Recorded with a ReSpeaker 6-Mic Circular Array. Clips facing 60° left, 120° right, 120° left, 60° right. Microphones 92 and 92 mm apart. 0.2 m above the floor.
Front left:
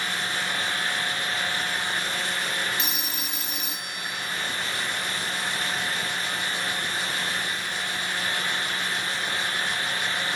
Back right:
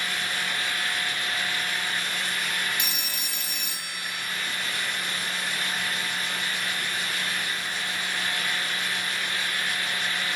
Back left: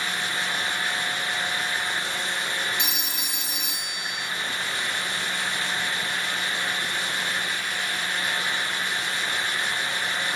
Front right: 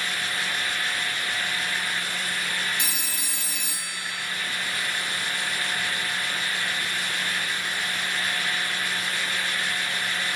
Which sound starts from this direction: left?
A phone ringing, at 2.8 s.